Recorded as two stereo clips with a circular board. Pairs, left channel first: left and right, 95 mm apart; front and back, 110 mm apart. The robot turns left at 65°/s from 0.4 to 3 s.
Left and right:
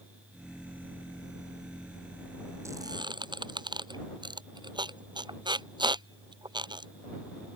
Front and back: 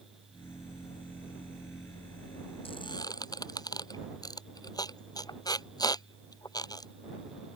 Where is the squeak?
30° right; by 6.9 s 55° right.